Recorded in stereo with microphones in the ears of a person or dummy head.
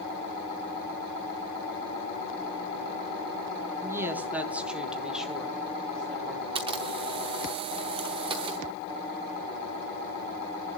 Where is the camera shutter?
20° right (ahead or behind), 0.9 m.